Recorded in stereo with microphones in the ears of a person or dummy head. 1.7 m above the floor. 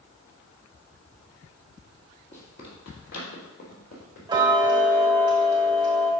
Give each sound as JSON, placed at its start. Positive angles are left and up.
{"t": 2.3, "sound": "running footsteps", "side_deg": 45, "distance_m": 2.5}
{"t": 4.3, "sound": "ticking", "side_deg": -20, "distance_m": 1.2}